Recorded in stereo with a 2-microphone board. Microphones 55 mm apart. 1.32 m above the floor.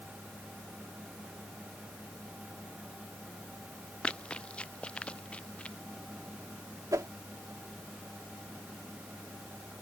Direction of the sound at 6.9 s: 85° right.